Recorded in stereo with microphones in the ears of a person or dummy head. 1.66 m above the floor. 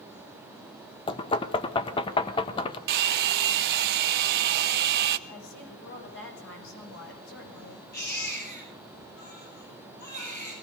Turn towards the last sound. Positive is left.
turn(degrees=55)  # may be behind; listen again after turning